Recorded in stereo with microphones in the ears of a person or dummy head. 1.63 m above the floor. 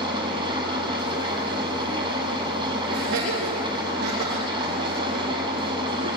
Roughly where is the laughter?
Right.